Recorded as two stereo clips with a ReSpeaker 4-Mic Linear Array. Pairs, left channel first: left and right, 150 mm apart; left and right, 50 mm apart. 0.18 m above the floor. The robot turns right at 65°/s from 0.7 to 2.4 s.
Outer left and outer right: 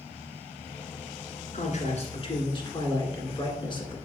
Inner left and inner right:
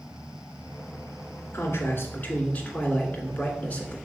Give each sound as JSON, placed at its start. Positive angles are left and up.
{"t": 1.5, "sound": "a man speaking", "azimuth_deg": 80, "distance_m": 1.9}